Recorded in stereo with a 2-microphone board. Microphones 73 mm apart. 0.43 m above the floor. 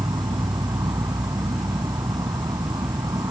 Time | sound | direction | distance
0.0 | an insect | 70° right (ahead or behind) | ?